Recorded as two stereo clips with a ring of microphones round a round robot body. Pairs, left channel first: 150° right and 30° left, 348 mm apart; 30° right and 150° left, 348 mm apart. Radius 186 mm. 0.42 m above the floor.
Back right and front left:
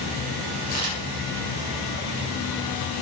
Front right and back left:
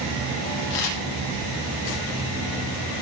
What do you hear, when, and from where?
0.7 s a camera shutter: 20° right, 7 m